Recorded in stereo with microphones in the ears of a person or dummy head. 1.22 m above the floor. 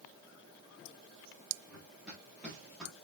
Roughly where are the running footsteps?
Centre.